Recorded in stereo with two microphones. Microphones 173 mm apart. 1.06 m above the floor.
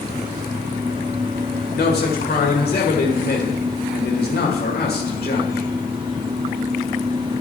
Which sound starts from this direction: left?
A man speaking, at 1.7 s.